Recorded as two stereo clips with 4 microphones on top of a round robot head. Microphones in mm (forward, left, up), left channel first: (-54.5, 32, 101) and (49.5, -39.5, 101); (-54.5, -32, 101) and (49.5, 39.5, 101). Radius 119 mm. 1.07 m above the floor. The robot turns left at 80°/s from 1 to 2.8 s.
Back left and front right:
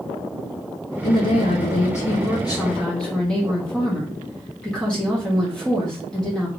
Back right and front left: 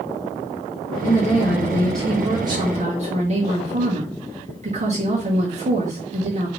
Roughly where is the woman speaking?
Behind right.